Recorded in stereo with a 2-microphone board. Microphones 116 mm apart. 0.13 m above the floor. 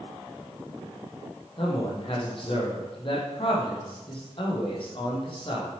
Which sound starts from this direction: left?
A man speaking, at 1.6 s.